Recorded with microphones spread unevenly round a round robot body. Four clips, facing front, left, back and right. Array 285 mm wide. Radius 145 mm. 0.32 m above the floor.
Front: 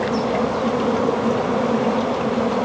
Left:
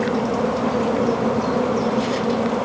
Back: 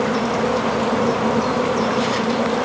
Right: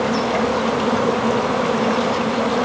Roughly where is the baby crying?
No baby crying in this recording.